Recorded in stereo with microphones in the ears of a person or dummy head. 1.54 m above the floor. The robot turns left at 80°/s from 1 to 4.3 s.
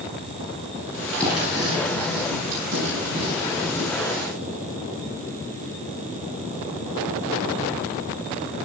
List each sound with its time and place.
1.2 s writing: 10° left (ahead or behind), 10 m; by 3.9 s 25° left (ahead or behind), 10 m